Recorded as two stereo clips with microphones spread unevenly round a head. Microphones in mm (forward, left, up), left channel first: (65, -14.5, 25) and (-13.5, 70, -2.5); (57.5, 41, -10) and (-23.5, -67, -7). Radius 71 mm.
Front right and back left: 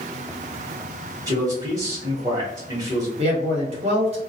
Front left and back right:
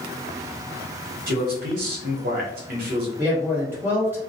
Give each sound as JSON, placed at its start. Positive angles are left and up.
{"t": 1.3, "sound": "a man speaking", "azimuth_deg": -160, "distance_m": 0.9}
{"t": 3.2, "sound": "a man speaking", "azimuth_deg": 155, "distance_m": 1.1}